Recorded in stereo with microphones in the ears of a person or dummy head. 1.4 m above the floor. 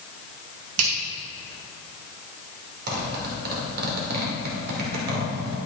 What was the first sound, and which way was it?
A finger snap, 85° right.